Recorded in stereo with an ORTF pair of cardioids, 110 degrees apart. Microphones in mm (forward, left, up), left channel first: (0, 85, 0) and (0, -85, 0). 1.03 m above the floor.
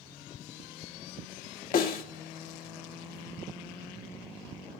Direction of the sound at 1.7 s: 60° left.